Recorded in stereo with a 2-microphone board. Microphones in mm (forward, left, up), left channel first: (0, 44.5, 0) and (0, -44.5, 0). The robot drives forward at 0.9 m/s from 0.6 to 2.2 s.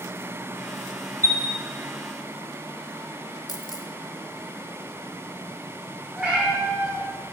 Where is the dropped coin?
50° left (ahead or behind), 0.8 m.